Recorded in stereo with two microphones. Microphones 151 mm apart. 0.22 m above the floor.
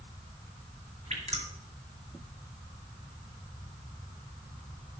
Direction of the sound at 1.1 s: 45° right (ahead or behind).